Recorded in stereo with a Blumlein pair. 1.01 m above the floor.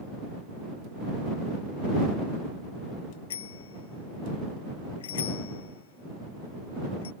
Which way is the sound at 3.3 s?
60° left.